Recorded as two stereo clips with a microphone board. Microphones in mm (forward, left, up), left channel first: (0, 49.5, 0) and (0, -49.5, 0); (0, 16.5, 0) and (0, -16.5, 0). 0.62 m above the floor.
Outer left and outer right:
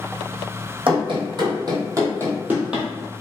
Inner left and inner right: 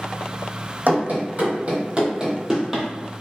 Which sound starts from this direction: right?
Running footsteps, at 0.9 s.